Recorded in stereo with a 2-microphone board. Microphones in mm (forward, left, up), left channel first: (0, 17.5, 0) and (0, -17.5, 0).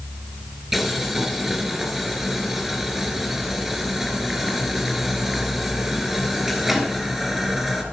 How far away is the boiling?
About 1.9 m.